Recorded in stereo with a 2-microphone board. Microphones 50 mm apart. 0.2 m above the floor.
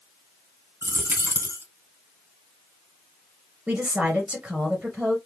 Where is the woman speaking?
25° right (ahead or behind), 2.5 m.